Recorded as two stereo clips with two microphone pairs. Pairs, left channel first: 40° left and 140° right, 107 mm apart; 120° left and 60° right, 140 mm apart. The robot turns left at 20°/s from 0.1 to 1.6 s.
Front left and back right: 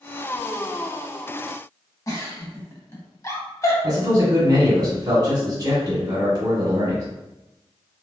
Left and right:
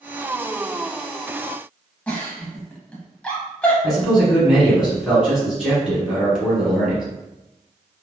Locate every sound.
2.1 s a giggle: 50° left, 0.8 m
3.8 s a man speaking: 155° right, 1.5 m